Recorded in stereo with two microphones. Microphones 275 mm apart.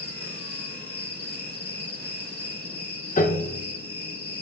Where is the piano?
30° left (ahead or behind), 0.5 m.